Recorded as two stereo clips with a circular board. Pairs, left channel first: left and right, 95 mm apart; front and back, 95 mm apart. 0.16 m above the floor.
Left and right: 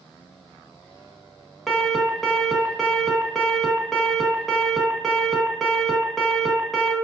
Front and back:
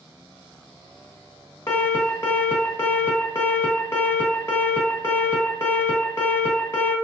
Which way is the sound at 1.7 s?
Straight ahead.